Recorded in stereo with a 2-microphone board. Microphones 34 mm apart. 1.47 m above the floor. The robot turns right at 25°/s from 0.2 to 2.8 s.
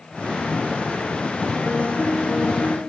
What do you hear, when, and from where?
1.6 s a piano: 45° left (ahead or behind), 1.7 m; by 2.8 s 70° left (ahead or behind), 1.7 m